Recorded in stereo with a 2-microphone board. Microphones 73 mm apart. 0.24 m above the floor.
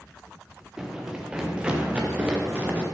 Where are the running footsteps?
10° right (ahead or behind), 2.5 m; by 2.8 s 20° right (ahead or behind), 4 m.